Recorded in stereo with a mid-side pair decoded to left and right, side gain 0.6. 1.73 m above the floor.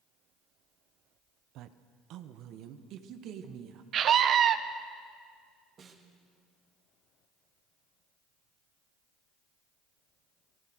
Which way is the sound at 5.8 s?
45° right.